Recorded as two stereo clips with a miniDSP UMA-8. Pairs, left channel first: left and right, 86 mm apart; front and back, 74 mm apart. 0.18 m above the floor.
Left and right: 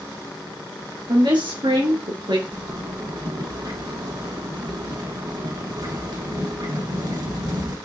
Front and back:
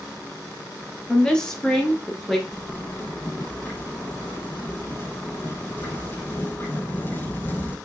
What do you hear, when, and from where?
1.1 s a woman speaking: 75° right, 4 m; by 2.4 s 90° right, 3 m
2.5 s a zipper: 55° right, 5.5 m